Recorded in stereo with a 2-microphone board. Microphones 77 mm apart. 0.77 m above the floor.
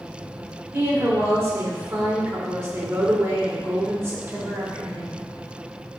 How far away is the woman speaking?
About 2.5 m.